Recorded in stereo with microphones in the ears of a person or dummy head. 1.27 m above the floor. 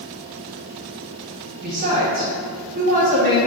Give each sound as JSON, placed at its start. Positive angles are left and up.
{"t": 1.6, "sound": "a woman speaking", "side_deg": -45, "distance_m": 1.7}